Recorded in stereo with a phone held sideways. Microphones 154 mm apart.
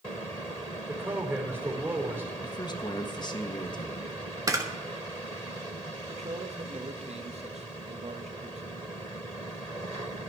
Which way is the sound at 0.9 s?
15° right (ahead or behind).